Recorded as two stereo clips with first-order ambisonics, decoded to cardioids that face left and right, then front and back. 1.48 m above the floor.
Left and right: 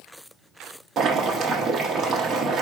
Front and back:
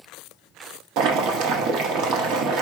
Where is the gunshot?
I don't hear a gunshot.